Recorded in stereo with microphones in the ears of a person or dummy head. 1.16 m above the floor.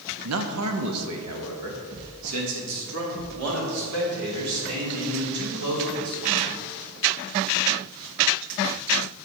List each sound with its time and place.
0.2 s a man speaking: 75° right (ahead or behind), 0.7 m; by 6.5 s 90° right, 4 m